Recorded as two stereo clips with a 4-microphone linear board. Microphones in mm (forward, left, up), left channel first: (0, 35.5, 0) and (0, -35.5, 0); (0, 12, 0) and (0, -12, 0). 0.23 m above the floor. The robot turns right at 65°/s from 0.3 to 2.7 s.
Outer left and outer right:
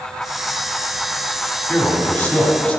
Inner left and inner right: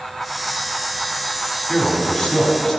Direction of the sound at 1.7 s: 15° left (ahead or behind).